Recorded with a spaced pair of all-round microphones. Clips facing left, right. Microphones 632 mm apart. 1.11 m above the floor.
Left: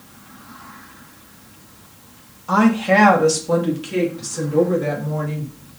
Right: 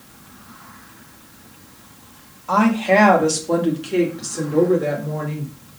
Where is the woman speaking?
45° left (ahead or behind), 1.7 m; by 5.5 s 30° left (ahead or behind), 4 m.